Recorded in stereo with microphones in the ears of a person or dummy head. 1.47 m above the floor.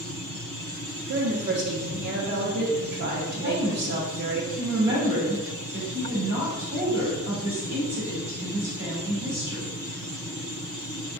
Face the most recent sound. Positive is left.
turn(degrees=-15)  # may be behind; listen again after turning